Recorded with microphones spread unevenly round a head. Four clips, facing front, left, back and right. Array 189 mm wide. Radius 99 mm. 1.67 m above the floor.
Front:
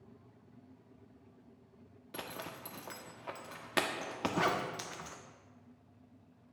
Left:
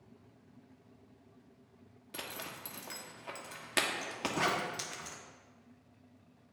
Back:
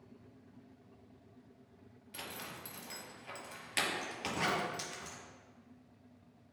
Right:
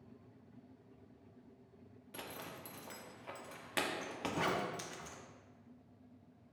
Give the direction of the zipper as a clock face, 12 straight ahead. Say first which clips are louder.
Left 3 dB, front 3 dB; 11 o'clock.